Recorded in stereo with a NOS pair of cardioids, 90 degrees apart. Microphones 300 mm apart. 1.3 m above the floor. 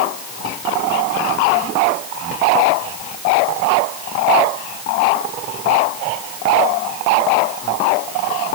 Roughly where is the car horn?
No car horn in this recording.